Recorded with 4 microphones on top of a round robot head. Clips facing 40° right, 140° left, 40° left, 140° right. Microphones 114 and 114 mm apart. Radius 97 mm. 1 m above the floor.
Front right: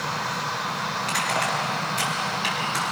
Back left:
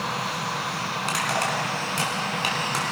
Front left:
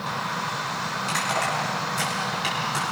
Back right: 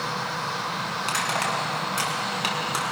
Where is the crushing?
Straight behind, 4 m.